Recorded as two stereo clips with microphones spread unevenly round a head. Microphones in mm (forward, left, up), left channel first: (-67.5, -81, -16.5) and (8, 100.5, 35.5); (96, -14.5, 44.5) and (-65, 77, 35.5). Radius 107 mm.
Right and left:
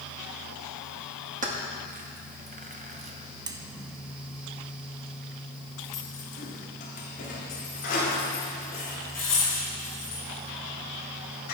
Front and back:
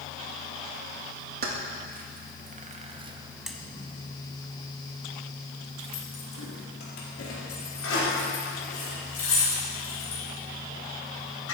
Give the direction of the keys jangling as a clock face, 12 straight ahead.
8 o'clock.